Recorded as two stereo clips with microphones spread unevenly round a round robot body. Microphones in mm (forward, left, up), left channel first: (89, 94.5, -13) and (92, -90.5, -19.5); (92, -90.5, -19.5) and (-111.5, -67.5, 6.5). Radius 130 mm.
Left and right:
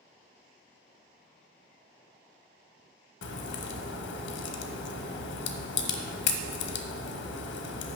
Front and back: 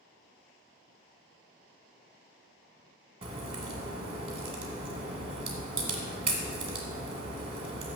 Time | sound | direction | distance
3.2 | a crack | 105° left | 0.8 m